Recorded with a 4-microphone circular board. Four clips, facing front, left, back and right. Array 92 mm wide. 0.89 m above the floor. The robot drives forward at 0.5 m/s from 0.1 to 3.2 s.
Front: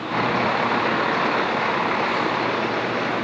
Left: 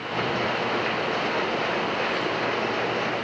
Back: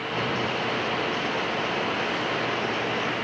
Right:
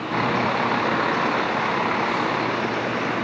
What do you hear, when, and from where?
0.0 s a vehicle: 45° right; by 3.2 s 50° right